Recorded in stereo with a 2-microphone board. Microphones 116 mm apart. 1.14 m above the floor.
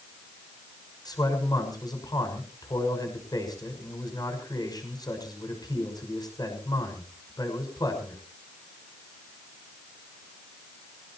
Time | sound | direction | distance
1.1 | a man speaking | 35° left (ahead or behind) | 6 m